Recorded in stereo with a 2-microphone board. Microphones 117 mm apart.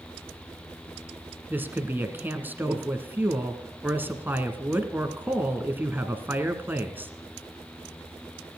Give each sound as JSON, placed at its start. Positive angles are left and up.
{"t": 1.5, "sound": "a woman speaking", "side_deg": -20, "distance_m": 1.8}